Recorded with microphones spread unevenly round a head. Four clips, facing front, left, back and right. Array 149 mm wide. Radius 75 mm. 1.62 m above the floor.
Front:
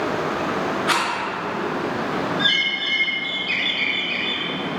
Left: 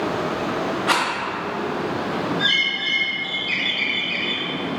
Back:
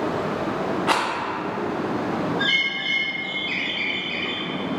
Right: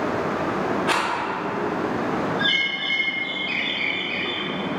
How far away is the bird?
About 1.7 m.